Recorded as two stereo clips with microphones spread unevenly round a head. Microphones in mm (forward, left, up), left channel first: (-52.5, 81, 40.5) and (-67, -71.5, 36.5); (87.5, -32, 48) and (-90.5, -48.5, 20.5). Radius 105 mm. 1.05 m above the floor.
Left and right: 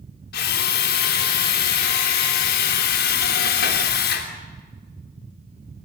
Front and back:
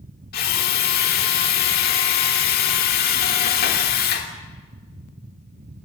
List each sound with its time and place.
0.3 s a drill: 55° left, 3 m